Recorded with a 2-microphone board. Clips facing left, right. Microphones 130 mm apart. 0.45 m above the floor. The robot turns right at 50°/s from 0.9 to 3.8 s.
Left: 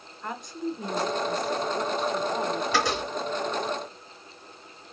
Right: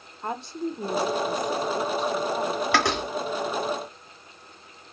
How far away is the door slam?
About 2 m.